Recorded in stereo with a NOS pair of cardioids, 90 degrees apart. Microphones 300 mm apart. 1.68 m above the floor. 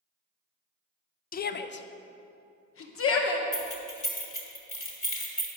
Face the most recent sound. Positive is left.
turn(degrees=25)